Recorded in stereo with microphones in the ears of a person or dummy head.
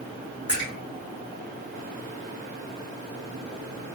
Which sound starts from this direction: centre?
A splash, at 0.5 s.